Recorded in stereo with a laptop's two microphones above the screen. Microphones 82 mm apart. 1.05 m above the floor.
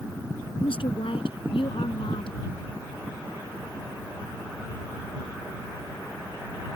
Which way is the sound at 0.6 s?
85° left.